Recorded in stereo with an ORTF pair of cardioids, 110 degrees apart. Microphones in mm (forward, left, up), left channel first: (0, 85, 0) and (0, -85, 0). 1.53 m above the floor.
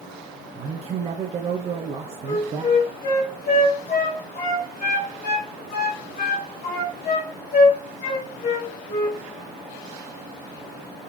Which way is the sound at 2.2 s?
55° left.